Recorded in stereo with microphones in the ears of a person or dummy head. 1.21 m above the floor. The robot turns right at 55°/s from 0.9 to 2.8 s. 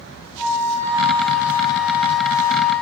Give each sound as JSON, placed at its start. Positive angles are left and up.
{"t": 0.4, "sound": "a flute", "azimuth_deg": -65, "distance_m": 2.0}